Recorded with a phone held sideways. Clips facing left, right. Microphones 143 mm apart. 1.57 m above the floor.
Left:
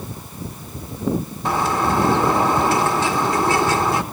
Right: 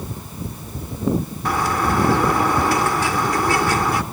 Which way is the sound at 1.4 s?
20° left (ahead or behind).